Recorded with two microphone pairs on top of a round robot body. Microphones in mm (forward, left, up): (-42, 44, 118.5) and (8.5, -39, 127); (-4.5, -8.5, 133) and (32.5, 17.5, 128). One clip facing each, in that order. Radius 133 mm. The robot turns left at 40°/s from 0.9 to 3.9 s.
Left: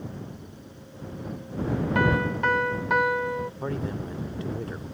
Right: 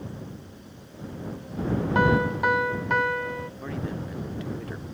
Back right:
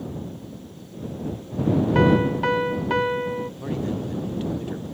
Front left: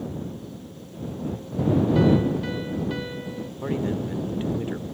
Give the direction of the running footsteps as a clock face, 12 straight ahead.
No running footsteps in this recording.